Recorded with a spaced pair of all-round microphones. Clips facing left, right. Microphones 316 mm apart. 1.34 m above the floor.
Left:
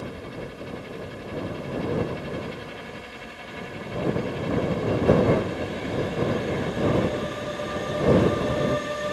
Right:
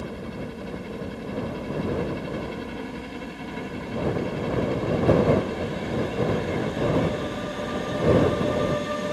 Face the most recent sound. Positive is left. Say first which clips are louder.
# right 2 dB
turn(degrees=-55)  # may be behind; listen again after turning